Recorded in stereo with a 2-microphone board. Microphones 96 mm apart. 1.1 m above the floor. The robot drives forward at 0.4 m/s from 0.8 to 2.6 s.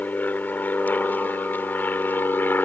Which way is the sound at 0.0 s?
20° left (ahead or behind).